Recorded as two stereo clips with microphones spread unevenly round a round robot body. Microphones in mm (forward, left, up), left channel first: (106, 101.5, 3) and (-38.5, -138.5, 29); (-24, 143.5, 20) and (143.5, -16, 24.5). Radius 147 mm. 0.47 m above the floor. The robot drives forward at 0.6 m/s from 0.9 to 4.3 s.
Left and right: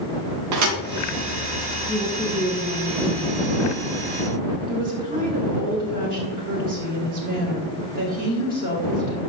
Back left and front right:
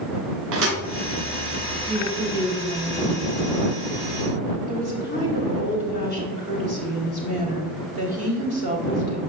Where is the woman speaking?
170° left, 1.3 m; by 9.2 s straight behind, 2 m.